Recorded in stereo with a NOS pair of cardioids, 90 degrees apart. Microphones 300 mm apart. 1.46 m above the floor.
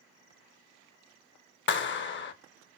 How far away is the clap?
About 0.7 m.